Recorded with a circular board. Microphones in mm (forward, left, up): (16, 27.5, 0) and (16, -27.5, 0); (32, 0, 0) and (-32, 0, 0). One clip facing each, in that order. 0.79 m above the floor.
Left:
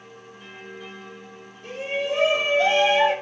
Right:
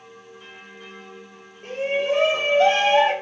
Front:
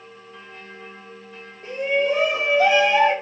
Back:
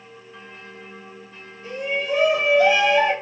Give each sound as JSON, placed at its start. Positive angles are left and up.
{"t": 1.6, "sound": "a shout", "azimuth_deg": -40, "distance_m": 3.5}